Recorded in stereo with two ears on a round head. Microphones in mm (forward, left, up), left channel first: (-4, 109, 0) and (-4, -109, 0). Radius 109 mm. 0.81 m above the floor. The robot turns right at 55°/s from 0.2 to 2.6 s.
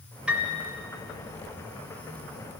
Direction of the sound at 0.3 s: 5° right (ahead or behind).